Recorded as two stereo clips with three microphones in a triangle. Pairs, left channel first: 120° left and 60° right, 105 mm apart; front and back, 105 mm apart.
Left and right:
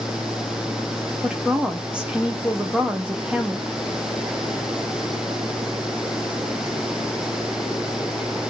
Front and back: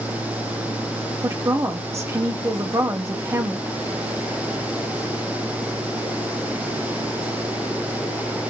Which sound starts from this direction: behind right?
A woman speaking, at 1.2 s.